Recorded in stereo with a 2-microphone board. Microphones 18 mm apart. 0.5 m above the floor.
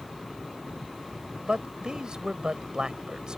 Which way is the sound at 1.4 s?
55° right (ahead or behind).